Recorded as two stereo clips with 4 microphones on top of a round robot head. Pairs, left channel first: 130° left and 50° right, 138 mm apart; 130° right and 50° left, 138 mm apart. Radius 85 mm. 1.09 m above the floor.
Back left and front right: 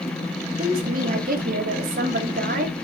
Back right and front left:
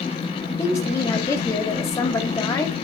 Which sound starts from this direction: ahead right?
A woman speaking, at 0.6 s.